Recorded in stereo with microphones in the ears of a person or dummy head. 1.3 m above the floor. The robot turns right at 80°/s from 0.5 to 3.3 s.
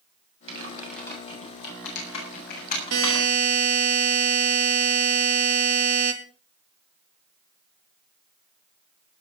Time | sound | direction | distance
0.5 | typing on a keyboard | 35° right (ahead or behind) | 8 m
2.9 | a buzzer | 80° right | 2 m